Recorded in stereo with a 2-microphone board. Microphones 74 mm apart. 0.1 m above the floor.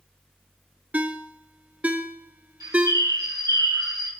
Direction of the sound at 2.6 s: 55° right (ahead or behind).